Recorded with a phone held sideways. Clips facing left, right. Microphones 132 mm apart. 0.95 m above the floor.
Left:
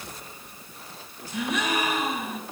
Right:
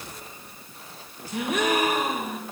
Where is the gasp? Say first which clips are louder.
Right 3 dB; 50° right (ahead or behind), 3 m.